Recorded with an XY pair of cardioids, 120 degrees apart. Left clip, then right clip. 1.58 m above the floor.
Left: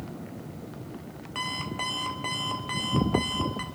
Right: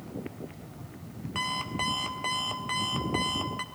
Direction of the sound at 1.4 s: 5° right.